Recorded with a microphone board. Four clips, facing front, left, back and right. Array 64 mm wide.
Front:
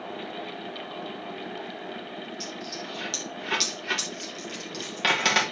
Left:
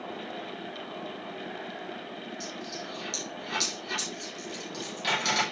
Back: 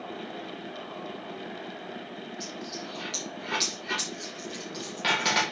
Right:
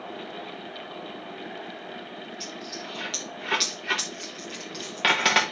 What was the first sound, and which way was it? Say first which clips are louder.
A dropped coin: right 1 dB, front 1 dB; 70° right.